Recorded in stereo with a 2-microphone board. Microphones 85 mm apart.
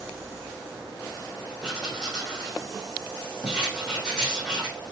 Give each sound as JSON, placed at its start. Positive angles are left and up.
{"t": 1.6, "sound": "writing", "side_deg": 10, "distance_m": 4.0}